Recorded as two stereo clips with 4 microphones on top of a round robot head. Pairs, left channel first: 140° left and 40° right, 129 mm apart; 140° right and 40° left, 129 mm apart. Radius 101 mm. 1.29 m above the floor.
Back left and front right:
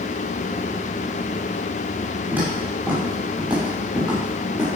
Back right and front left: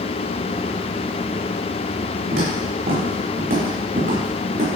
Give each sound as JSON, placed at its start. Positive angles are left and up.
{"t": 2.3, "sound": "footsteps", "azimuth_deg": 35, "distance_m": 6.0}